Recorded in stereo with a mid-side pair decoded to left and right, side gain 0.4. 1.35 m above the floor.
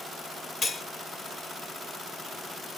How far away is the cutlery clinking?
About 1.2 m.